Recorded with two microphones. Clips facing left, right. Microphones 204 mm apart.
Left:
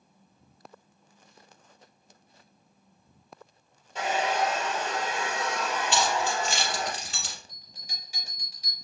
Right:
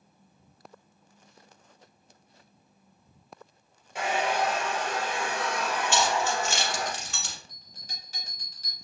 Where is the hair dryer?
10° right (ahead or behind), 1.5 m.